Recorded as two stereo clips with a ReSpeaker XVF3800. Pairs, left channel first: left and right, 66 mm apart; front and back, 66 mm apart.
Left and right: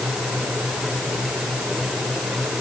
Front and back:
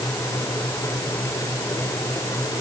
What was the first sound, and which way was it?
Only background noise.